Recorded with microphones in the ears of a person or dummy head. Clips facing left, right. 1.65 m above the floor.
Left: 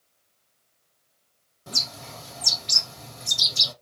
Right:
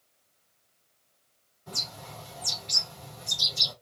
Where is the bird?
75° left (ahead or behind), 2.5 m.